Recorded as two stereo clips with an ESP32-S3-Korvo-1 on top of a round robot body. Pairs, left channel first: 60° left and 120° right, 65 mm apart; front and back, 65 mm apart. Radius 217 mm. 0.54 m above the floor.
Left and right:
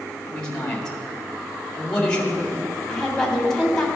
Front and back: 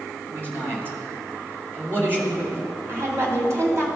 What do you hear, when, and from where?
0.3 s a man speaking: 135° left, 2 m
2.9 s a woman speaking: 140° left, 2 m